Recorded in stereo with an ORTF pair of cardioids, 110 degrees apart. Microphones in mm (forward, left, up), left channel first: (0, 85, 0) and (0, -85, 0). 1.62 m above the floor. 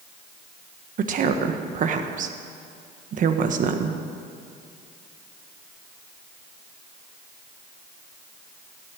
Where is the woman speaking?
50° right, 1.3 m.